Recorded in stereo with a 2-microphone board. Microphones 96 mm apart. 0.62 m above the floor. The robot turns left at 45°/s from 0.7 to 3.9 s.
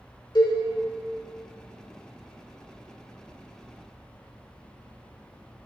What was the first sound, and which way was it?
A cowbell, 45° left (ahead or behind).